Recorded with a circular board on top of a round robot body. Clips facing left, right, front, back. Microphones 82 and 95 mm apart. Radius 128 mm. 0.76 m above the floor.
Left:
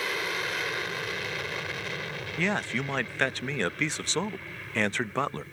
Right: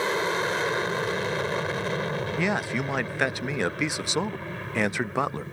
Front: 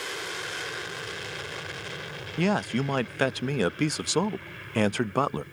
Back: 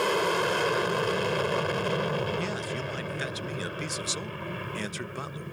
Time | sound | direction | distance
0.0 | an aircraft | 150° right | ?
2.4 | a man speaking | 15° right | ?